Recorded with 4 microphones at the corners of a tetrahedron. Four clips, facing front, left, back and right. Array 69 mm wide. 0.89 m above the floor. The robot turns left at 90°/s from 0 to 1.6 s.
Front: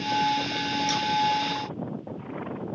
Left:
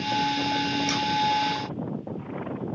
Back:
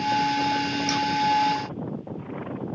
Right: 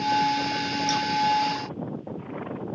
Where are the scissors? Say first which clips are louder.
Right 2 dB, back 4 dB; 120° left, 1.2 m; by 1.0 s 105° left, 1.2 m.